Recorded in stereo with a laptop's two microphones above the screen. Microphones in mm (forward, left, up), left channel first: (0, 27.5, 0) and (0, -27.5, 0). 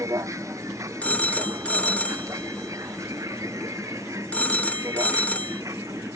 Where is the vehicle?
70° right (ahead or behind); by 6.2 s 75° right (ahead or behind).